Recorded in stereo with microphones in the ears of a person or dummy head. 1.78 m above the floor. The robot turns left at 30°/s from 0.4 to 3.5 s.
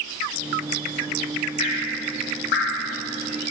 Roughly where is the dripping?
Left.